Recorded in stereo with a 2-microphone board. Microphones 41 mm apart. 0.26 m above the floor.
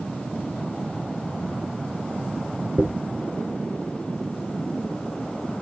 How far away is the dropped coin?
About 0.5 m.